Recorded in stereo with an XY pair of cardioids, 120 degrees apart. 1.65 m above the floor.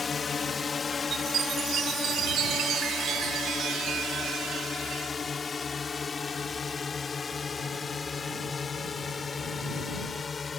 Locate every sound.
0.0 s a drone: 35° left; by 10.6 s 30° left
1.1 s a chime: 60° right